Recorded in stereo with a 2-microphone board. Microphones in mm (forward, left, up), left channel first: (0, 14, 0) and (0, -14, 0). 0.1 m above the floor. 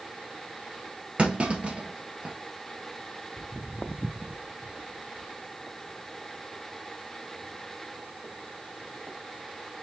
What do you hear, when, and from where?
1.2 s a clunk: 45° right (ahead or behind), 1.5 m
3.4 s footsteps: 55° left (ahead or behind), 0.8 m; by 9.2 s 85° right, 3 m